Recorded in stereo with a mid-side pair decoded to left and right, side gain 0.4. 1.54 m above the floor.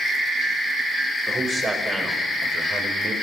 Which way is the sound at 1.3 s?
30° right.